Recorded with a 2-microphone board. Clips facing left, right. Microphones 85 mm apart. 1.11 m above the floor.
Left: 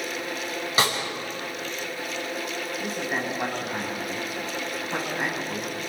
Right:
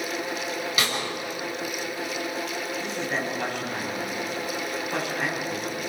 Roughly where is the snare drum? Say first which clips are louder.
Left 5 dB; left.